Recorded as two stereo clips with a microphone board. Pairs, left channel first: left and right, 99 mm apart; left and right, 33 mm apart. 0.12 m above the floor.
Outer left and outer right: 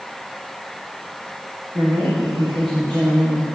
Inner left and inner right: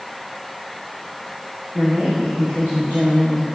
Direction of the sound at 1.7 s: 55° right (ahead or behind).